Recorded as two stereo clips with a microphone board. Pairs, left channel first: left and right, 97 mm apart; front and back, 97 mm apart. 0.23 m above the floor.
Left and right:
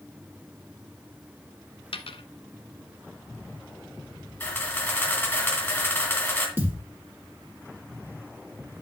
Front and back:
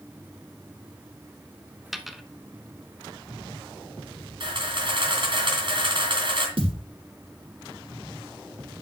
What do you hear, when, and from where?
1.9 s a dropped coin: 90° left, 1.0 m
4.4 s a camera shutter: 160° left, 3 m
6.6 s a thud: 155° right, 3.5 m